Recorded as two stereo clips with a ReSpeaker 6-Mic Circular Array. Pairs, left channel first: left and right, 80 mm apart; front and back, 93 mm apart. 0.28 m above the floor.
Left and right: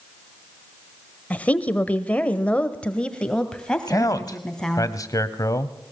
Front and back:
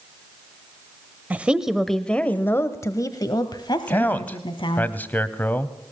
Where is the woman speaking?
135° left, 1.2 m; by 4.9 s 5° left, 2.5 m.